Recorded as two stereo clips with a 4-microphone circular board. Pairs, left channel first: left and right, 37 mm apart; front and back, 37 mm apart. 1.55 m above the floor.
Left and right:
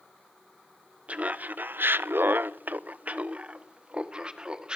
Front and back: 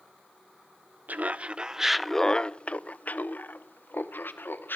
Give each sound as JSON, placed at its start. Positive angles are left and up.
{"t": 1.1, "sound": "laughter", "azimuth_deg": -140, "distance_m": 0.7}